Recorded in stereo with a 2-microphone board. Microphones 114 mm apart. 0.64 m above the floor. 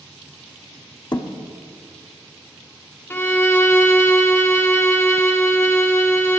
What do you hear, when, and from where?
1.1 s a thud: 40° left (ahead or behind), 0.6 m
3.1 s a violin: 20° left (ahead or behind), 0.7 m